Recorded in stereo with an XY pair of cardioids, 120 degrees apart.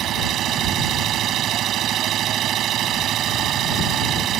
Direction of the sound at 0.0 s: 60° right.